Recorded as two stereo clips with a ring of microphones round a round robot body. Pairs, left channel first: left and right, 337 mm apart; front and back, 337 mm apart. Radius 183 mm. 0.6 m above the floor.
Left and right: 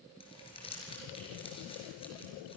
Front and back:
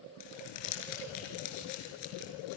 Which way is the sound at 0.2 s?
10° left.